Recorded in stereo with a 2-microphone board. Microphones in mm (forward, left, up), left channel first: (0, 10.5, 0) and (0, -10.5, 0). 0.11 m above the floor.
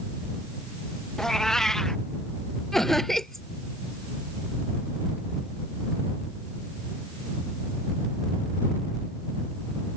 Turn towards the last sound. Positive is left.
turn(degrees=15)  # may be behind; listen again after turning